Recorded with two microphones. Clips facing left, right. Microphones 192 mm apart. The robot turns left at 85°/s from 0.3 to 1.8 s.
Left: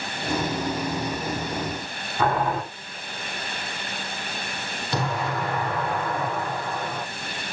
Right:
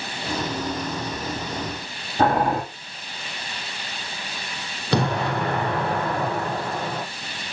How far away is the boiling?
About 7.5 m.